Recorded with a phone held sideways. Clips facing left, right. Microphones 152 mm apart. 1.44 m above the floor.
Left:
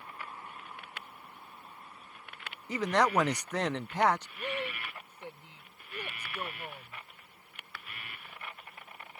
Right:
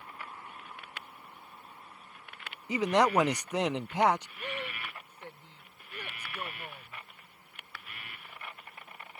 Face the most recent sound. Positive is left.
turn(degrees=15)  # may be behind; listen again after turning